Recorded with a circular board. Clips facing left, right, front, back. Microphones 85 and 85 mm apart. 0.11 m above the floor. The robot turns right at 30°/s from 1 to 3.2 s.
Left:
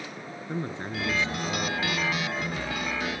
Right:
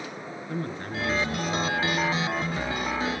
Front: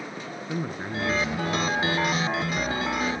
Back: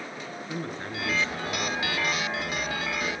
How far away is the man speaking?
About 1.2 m.